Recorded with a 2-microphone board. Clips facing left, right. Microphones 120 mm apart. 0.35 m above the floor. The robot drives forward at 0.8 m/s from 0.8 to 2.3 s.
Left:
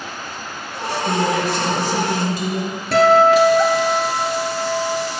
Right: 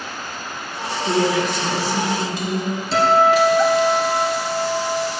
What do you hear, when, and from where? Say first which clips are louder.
1.1 s a woman speaking: right 1 dB; 40° left (ahead or behind), 2 m; by 2.8 s 50° left (ahead or behind), 1.7 m
2.9 s a guitar: left 3 dB; 60° left (ahead or behind), 1.3 m